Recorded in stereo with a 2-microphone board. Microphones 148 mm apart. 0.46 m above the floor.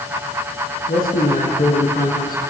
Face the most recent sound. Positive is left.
turn(degrees=80)